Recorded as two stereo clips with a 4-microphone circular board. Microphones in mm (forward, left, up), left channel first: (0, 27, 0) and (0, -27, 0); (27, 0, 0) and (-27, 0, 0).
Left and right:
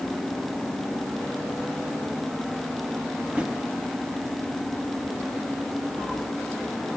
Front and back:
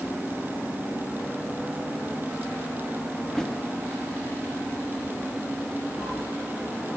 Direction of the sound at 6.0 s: 15° right.